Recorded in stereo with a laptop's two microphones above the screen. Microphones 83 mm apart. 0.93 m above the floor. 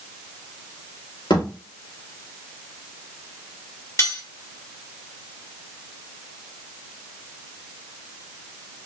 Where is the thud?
65° left (ahead or behind), 3.5 m.